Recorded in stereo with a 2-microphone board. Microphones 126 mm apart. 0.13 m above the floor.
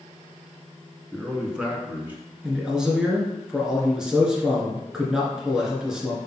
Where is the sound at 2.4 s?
5° right (ahead or behind), 2 m.